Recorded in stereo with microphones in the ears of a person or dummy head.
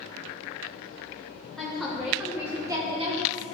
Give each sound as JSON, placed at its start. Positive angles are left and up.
{"t": 1.6, "sound": "a woman speaking", "side_deg": 10, "distance_m": 1.4}